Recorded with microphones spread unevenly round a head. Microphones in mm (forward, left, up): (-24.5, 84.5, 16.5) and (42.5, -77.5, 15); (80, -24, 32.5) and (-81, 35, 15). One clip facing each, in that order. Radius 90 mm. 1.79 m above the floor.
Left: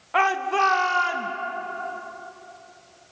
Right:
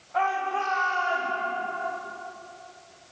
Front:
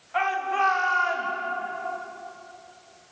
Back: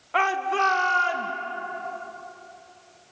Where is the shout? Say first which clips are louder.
Left 4 dB, back 1 dB; 130° left, 1.9 m; by 1.3 s 105° left, 3 m.